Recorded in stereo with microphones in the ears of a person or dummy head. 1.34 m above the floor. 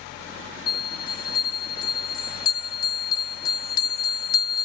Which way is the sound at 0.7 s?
25° left (ahead or behind).